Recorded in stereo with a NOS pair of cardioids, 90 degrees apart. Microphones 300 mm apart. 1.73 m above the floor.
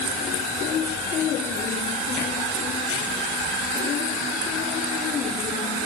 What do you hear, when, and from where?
Only background noise.